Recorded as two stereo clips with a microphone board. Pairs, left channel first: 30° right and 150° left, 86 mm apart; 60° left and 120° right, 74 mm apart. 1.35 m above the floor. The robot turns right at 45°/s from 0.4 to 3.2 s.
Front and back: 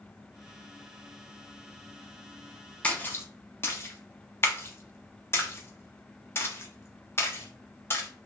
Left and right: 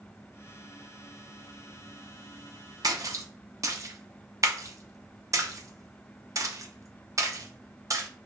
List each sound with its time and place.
2.8 s a splash: 105° right, 0.5 m; by 8.1 s 85° right, 0.5 m